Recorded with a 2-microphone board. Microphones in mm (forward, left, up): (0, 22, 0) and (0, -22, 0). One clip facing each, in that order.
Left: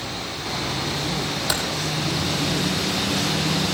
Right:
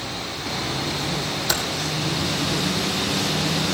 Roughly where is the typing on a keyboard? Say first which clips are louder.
Right 1 dB; centre.